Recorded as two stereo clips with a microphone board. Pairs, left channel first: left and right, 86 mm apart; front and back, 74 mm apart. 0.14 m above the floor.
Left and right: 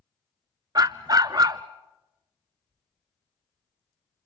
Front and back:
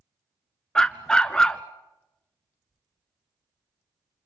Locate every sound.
0.8 s a dog barking: 75° right, 0.8 m